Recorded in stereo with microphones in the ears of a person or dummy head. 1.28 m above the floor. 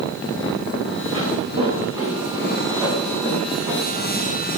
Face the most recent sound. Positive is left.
turn(degrees=-15)  # may be behind; listen again after turning